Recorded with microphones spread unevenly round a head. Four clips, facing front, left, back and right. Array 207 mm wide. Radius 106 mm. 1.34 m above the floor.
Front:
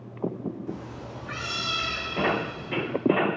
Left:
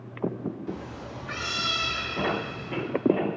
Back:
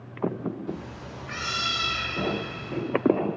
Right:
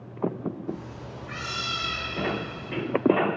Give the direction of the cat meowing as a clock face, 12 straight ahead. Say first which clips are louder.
Even, even; 10 o'clock.